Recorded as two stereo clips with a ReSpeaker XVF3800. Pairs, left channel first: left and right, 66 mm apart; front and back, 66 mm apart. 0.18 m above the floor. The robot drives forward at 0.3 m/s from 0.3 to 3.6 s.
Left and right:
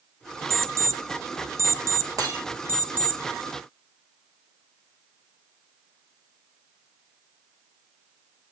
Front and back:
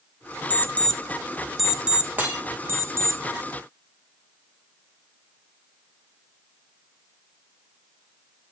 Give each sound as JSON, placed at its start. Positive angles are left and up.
{"t": 0.5, "sound": "an alarm clock", "azimuth_deg": -55, "distance_m": 0.6}
{"t": 2.2, "sound": "breaking glass", "azimuth_deg": -115, "distance_m": 1.8}